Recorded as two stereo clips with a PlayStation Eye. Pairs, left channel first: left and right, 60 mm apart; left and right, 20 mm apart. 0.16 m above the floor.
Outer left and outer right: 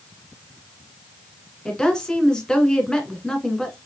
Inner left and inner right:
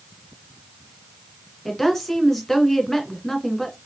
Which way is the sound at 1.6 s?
10° left (ahead or behind).